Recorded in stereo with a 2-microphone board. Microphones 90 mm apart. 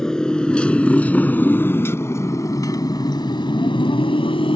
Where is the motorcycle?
5° left (ahead or behind); by 4.6 s 85° left.